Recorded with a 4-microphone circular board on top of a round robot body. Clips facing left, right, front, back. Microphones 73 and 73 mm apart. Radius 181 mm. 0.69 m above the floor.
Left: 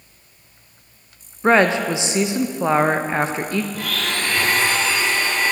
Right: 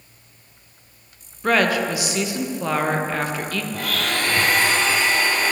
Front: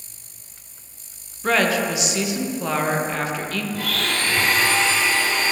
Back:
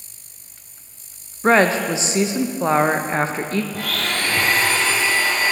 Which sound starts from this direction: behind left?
A woman speaking, at 1.4 s.